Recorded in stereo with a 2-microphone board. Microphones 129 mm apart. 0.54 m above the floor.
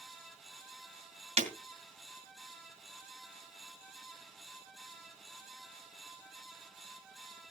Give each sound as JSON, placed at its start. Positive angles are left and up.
{"t": 1.4, "sound": "breaking glass", "side_deg": -55, "distance_m": 2.5}